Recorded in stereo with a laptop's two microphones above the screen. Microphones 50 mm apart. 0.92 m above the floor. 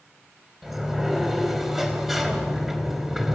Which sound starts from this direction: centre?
A sliding door, at 0.6 s.